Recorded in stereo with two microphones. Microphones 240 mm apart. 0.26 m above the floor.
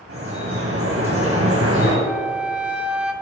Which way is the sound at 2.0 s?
5° right (ahead or behind).